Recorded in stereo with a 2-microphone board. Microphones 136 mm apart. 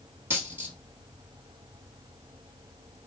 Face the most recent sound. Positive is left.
turn(degrees=-15)  # may be behind; listen again after turning